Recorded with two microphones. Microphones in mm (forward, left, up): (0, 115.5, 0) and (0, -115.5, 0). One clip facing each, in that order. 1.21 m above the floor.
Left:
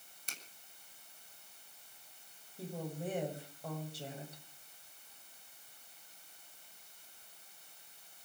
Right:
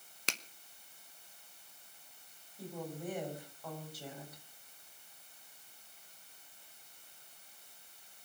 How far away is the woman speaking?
About 7.5 m.